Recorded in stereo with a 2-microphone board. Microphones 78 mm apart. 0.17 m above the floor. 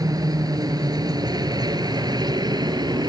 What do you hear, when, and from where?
0.0 s a helicopter: 55° right (ahead or behind); by 3.1 s 65° right (ahead or behind)